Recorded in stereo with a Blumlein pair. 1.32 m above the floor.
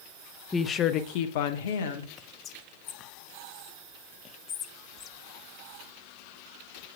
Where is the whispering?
25° left, 0.6 m.